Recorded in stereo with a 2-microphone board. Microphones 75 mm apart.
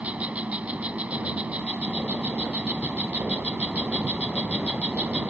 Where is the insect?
20° right (ahead or behind).